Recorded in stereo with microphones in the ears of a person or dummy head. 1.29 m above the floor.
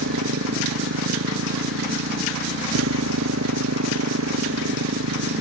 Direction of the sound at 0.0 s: 90° right.